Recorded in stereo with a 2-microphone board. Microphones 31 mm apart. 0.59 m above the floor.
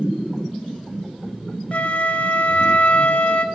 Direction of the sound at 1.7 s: 50° left (ahead or behind).